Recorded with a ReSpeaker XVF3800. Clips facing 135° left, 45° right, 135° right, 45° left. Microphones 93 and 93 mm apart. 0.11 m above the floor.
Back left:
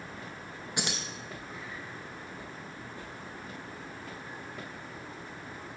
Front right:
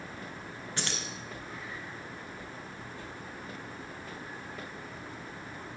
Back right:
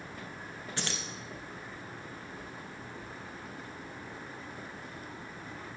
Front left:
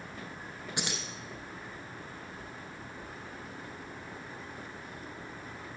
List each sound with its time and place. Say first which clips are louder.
0.8 s keys jangling: back left 2 dB, front left 1 dB; 85° left, 0.9 m